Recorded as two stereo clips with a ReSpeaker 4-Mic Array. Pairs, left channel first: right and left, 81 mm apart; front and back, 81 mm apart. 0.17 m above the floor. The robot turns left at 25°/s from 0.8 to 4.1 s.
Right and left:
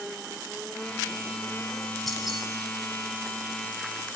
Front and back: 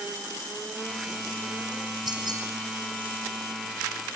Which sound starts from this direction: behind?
Keys jangling, at 2.1 s.